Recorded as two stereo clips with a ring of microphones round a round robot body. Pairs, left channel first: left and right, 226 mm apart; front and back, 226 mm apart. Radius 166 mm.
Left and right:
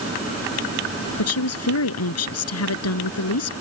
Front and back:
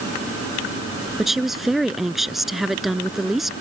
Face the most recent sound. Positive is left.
turn(degrees=90)